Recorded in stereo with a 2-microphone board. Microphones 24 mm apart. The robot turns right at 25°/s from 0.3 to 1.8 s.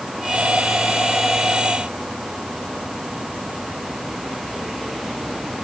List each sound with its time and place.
Only background noise.